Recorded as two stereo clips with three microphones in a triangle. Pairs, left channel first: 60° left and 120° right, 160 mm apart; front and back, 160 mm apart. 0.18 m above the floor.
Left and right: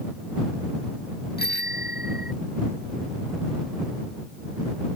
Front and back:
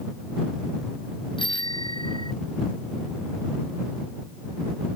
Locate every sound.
1.4 s a bicycle bell: 60° left